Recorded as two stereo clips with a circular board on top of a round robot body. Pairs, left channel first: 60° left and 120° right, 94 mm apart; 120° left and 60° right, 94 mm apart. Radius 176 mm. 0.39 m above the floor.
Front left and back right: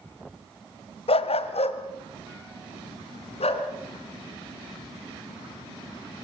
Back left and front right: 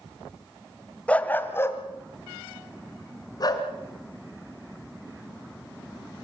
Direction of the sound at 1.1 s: 40° left.